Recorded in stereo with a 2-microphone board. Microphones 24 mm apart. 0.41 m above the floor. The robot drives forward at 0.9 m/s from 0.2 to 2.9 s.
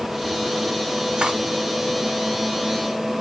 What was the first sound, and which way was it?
Cutlery clinking, 45° right (ahead or behind).